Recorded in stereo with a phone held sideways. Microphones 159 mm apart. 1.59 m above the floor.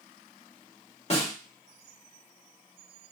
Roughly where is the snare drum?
Left.